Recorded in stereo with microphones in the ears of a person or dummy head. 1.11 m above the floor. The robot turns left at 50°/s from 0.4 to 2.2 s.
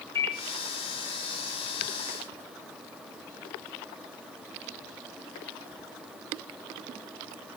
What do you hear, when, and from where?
0.1 s a microwave: 15° left (ahead or behind), 0.5 m